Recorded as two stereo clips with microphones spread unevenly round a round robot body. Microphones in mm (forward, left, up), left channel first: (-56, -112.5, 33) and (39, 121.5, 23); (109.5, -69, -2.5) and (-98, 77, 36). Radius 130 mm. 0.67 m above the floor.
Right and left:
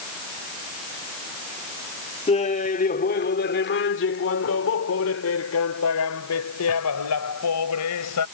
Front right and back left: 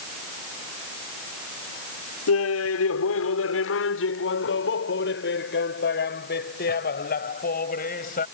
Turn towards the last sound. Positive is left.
turn(degrees=-95)